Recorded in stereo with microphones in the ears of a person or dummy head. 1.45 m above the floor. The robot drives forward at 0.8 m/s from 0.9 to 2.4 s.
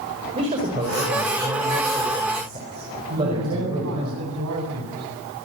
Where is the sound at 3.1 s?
75° right (ahead or behind), 8.5 m.